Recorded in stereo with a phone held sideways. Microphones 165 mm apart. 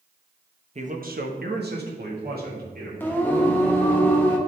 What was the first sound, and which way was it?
A man speaking, 45° right (ahead or behind).